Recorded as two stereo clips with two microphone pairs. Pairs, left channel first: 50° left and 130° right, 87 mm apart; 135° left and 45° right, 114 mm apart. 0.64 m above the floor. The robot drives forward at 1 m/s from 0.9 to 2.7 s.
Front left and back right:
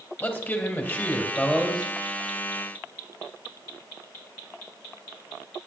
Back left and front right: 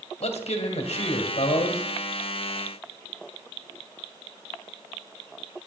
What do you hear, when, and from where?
0.2 s a man speaking: 115° left, 2 m; by 1.8 s 135° left, 2.5 m